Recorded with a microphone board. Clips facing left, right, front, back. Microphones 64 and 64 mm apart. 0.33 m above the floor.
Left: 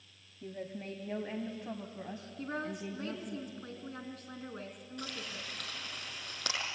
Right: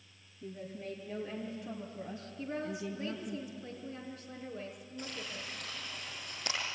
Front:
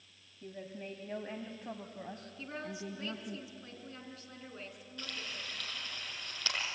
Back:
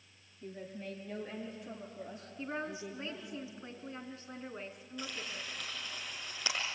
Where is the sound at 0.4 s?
75° left, 1.8 m; by 3.4 s 10° left, 2.5 m.